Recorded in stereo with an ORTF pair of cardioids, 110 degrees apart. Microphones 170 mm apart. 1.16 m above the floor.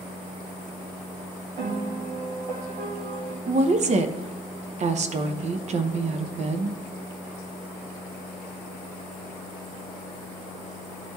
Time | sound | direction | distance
1.6 | a piano | 65° right | 1.9 m
3.5 | a woman speaking | 45° right | 0.9 m